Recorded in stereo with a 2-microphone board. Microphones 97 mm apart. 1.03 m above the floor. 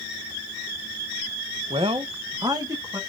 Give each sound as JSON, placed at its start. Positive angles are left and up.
{"t": 1.7, "sound": "a man speaking", "side_deg": -75, "distance_m": 0.5}